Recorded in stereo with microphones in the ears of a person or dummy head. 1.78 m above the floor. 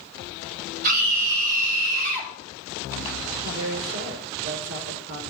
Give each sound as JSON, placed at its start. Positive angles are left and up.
{"t": 0.8, "sound": "a scream", "side_deg": -50, "distance_m": 9.0}
{"t": 3.4, "sound": "a woman speaking", "side_deg": -80, "distance_m": 5.0}